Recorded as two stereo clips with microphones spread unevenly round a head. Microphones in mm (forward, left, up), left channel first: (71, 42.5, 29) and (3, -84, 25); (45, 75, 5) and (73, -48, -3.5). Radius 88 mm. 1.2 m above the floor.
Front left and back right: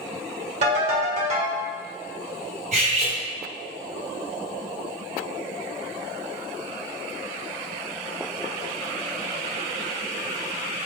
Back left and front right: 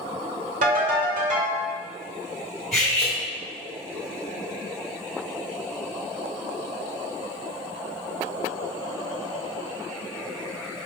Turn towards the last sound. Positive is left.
turn(degrees=-170)